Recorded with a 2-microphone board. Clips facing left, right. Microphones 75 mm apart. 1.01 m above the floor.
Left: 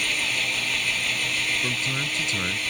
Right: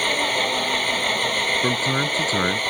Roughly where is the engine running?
Right.